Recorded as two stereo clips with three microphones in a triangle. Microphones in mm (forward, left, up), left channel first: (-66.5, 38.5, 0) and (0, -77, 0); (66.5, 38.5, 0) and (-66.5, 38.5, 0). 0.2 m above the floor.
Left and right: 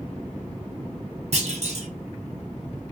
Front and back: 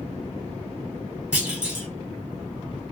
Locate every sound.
1.3 s a clunk: 95° right, 1.3 m